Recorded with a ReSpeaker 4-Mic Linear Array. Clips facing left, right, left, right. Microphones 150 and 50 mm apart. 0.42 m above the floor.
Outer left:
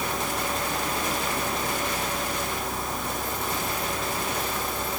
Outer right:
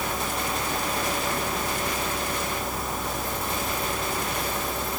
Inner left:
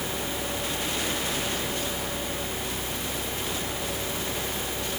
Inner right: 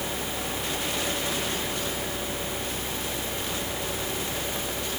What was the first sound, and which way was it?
Only background noise.